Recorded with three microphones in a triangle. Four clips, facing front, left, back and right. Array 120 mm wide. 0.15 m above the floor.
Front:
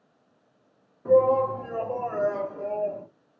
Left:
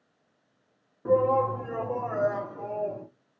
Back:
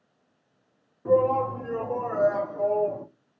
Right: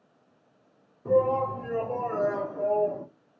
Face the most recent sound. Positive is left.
turn(degrees=-140)